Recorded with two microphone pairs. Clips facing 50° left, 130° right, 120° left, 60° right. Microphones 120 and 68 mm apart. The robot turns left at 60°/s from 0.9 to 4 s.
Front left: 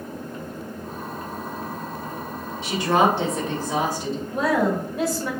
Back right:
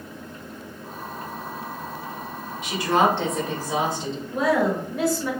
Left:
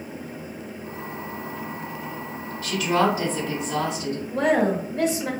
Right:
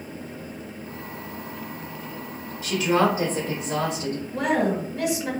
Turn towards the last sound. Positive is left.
turn(degrees=140)